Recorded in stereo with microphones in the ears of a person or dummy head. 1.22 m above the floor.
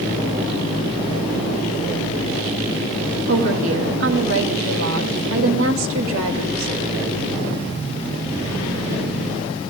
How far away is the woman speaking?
About 1.7 m.